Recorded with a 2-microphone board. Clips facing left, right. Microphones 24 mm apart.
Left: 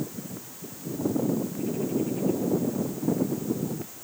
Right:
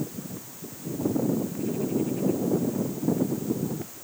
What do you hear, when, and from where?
Only background noise.